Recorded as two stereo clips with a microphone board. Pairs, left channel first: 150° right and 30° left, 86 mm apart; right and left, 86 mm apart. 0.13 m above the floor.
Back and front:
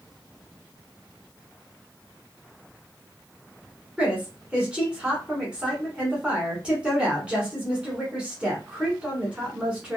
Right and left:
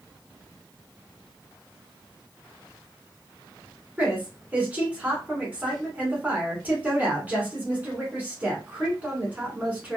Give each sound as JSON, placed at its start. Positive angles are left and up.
{"t": 4.0, "sound": "a woman speaking", "azimuth_deg": 80, "distance_m": 1.2}